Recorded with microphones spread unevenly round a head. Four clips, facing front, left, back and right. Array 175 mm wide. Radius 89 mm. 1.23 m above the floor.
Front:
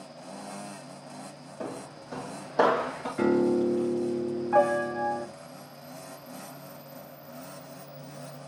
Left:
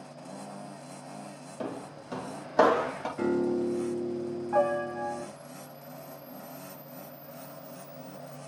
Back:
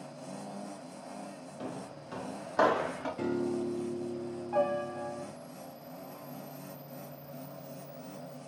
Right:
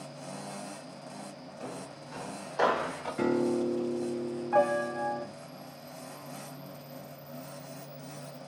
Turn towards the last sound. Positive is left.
turn(degrees=120)